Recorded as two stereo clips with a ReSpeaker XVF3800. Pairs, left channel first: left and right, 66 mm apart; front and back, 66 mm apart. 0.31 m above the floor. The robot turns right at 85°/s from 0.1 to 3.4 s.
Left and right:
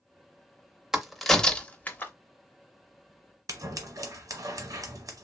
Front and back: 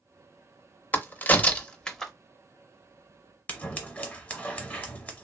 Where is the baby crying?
No baby crying in this recording.